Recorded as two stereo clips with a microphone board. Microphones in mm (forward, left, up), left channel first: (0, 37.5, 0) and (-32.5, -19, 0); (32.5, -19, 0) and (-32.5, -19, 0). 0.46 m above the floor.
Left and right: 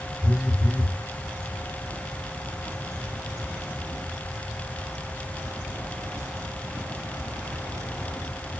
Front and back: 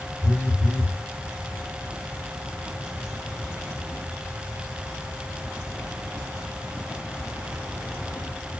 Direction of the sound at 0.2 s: Straight behind.